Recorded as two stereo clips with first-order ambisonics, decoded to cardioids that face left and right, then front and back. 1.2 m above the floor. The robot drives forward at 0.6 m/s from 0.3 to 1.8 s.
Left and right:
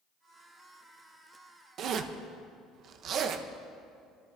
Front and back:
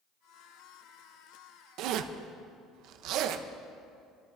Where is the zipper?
145° right, 0.7 m.